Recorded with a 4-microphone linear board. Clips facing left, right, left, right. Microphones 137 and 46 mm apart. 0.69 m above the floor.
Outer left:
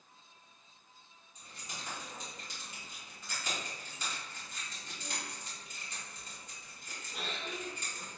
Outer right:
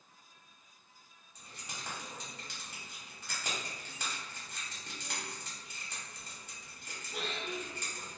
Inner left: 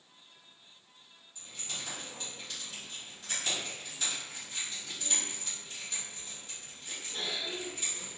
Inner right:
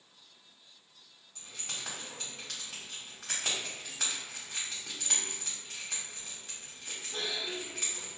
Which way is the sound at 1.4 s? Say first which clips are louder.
Even, even; 70° right (ahead or behind).